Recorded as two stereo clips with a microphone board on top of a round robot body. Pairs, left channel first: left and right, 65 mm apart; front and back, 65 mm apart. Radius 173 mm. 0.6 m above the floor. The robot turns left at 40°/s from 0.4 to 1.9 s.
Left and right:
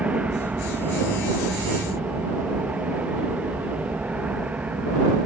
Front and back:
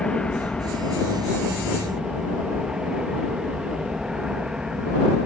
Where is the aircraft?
55° right; by 5.3 s 115° right.